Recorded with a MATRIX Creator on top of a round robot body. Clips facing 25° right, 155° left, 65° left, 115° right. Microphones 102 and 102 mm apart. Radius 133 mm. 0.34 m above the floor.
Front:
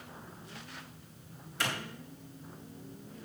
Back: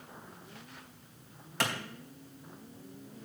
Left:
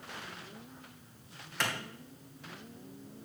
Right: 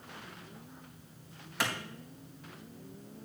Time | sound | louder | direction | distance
1.6 | a clap | back 2 dB, right 1 dB | 165° left | 3.5 m